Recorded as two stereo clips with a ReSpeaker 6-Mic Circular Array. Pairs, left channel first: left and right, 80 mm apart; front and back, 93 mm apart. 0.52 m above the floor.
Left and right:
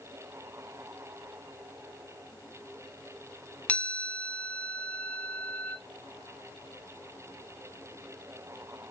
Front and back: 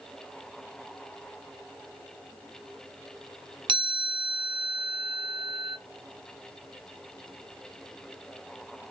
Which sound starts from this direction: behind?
A chime, at 3.7 s.